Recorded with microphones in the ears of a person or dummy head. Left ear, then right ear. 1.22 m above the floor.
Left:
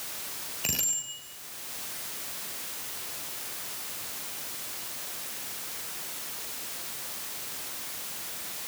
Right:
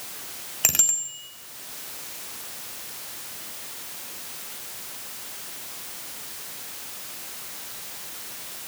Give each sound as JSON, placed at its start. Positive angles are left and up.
{"t": 0.6, "sound": "a bicycle bell", "side_deg": -50, "distance_m": 4.0}